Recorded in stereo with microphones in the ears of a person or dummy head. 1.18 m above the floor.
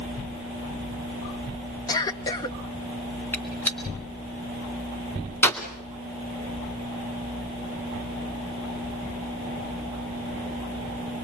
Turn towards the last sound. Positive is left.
turn(degrees=10)  # may be behind; listen again after turning